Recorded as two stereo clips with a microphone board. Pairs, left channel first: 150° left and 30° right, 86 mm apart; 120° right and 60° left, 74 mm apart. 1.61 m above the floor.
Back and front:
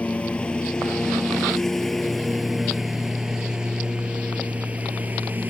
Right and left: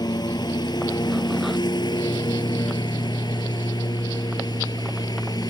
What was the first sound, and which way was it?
A lawn mower, 135° right.